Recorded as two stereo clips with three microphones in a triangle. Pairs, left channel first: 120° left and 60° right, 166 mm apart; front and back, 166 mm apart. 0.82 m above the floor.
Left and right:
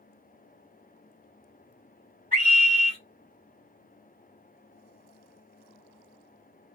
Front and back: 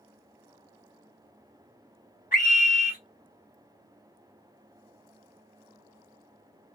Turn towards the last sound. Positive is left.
turn(degrees=-30)